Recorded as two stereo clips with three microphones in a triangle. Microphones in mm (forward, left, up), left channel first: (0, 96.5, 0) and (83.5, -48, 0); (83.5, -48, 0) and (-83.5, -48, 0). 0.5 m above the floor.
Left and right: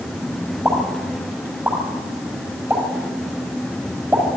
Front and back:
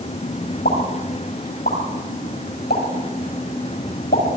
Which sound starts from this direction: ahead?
A pop, at 0.7 s.